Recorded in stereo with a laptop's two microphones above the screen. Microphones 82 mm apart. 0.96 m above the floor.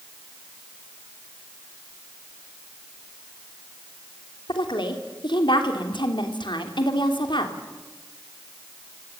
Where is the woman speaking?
75° left (ahead or behind), 3 m.